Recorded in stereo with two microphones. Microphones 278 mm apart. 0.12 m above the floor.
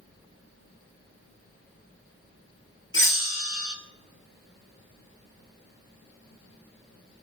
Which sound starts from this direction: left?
A bell, at 2.9 s.